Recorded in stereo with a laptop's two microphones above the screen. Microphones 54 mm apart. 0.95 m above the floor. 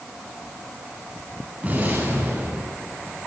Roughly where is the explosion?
Right.